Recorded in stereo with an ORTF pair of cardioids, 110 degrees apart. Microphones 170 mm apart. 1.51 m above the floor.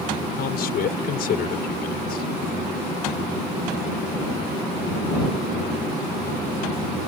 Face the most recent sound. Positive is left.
turn(degrees=65)